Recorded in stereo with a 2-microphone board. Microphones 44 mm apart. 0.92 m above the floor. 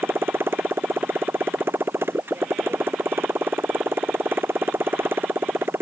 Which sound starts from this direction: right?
A motorcycle, at 0.0 s.